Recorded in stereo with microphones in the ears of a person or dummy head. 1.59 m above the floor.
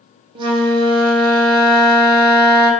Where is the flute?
25° right (ahead or behind), 0.8 m.